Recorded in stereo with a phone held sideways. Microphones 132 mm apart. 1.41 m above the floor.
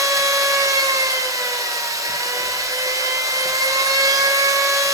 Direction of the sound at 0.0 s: 25° right (ahead or behind).